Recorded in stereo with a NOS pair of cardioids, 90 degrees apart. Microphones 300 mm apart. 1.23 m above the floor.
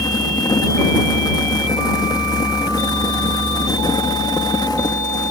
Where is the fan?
15° left.